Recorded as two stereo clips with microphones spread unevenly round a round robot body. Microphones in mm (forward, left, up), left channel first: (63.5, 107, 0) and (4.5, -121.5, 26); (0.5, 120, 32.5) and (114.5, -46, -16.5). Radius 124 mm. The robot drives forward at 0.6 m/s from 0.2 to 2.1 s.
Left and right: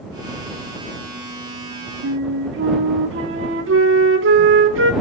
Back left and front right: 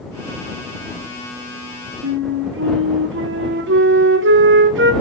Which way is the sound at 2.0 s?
65° right.